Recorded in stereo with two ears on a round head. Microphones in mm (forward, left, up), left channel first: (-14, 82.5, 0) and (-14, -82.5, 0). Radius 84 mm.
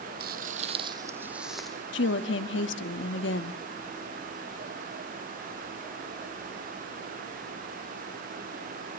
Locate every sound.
0.2 s footsteps: 55° right (ahead or behind), 1.7 m; by 1.8 s 5° left (ahead or behind), 2.5 m
1.9 s a woman speaking: 70° left (ahead or behind), 1.3 m